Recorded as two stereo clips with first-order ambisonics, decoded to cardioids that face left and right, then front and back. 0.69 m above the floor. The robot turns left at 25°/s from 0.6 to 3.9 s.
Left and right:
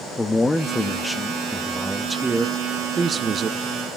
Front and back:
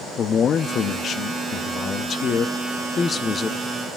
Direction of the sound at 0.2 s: 15° left.